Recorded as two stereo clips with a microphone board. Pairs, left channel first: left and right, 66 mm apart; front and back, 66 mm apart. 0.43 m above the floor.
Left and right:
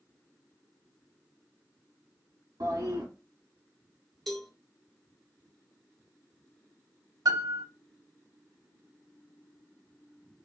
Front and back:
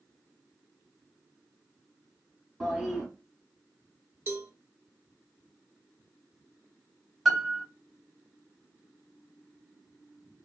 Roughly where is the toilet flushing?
Right.